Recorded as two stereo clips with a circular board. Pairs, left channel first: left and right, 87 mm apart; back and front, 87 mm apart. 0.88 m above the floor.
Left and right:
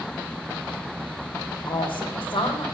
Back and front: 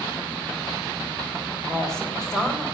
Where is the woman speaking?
95° left, 3.5 m.